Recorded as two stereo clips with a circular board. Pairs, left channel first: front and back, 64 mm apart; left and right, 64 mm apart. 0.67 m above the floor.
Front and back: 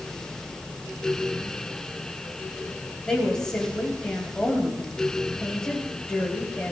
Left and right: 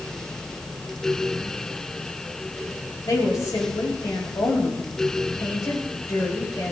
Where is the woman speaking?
80° left, 4.5 m.